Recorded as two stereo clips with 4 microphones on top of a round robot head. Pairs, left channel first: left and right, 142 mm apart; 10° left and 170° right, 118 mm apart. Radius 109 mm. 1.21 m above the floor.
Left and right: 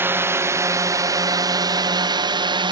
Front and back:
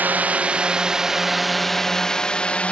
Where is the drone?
130° right; by 2.7 s 65° right.